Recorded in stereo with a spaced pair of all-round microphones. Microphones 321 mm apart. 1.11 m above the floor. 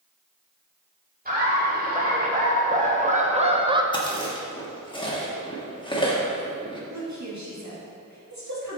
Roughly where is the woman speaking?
Right.